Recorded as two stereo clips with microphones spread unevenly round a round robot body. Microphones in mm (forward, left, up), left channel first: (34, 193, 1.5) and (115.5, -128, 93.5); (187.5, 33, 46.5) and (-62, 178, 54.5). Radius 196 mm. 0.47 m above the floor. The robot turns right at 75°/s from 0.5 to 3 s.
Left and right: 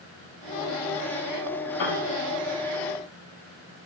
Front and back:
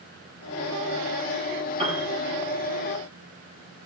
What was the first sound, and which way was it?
A piano, 80° left.